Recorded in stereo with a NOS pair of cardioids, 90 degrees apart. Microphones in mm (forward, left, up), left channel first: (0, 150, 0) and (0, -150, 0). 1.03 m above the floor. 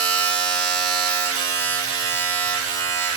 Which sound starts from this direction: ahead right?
A machine running, at 0.0 s.